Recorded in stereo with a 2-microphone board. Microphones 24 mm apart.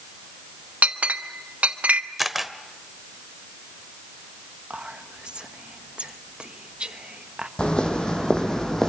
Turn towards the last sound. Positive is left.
turn(degrees=25)  # may be behind; listen again after turning